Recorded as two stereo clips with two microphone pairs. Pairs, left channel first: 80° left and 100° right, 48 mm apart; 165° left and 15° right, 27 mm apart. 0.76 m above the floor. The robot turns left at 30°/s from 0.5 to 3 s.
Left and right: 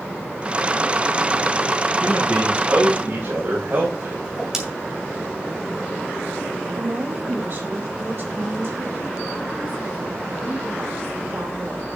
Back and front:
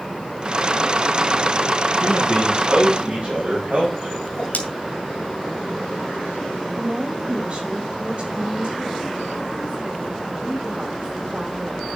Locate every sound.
2.0 s a man speaking: 30° right, 4 m; by 4.1 s 60° right, 4 m
4.2 s a whoosh: straight behind, 2.5 m
6.8 s a woman speaking: 60° right, 4.5 m